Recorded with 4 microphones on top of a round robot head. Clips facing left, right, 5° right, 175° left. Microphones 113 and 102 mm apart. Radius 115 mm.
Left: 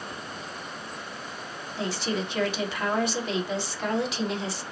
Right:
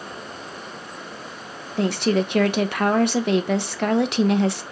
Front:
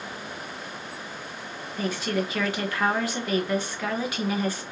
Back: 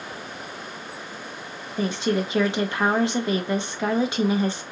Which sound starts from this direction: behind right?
A woman speaking, at 1.8 s.